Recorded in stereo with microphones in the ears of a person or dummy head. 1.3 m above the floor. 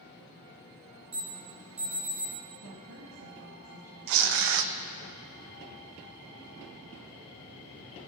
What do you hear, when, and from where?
1.1 s an alarm: 5° right (ahead or behind), 5 m
2.6 s a woman speaking: 75° right (ahead or behind), 2 m
4.1 s tearing paper: 60° right (ahead or behind), 0.8 m